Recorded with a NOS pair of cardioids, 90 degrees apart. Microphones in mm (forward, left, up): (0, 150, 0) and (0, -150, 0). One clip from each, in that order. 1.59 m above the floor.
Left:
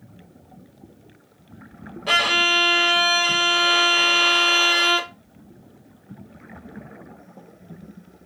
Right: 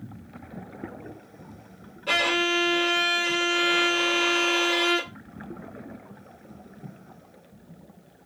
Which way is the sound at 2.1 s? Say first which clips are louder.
Left 5 dB; 40° left.